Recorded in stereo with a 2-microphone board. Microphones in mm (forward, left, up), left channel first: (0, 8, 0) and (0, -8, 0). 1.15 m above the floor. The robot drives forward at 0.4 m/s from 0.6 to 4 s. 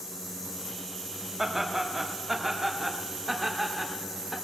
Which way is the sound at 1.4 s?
20° right (ahead or behind).